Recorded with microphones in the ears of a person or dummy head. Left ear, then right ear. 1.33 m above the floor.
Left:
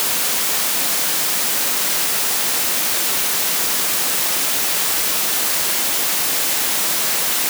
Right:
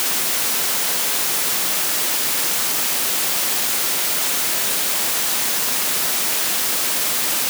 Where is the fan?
I don't hear a fan.